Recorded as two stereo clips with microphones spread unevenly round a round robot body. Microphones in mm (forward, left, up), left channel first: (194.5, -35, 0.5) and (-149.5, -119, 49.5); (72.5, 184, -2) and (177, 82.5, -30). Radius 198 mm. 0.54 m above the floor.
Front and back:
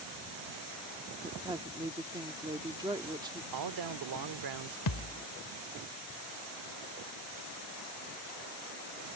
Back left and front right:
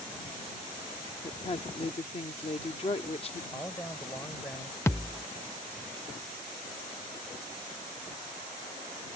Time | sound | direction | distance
1.2 | a woman speaking | 110° left | ?
3.5 | a man speaking | 145° right | ?
4.9 | a thud | 60° left | ?